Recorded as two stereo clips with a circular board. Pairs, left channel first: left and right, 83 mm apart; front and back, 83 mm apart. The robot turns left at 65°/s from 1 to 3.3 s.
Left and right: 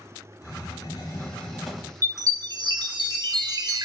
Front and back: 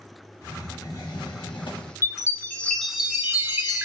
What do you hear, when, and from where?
0.4 s a hiss: 45° left, 0.9 m; by 1.9 s 15° right, 0.9 m
2.0 s a chime: 35° right, 0.6 m; by 3.9 s 120° right, 0.6 m